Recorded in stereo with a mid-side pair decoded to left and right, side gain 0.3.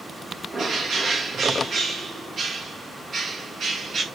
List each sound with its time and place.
0.5 s a bird: 65° right, 2 m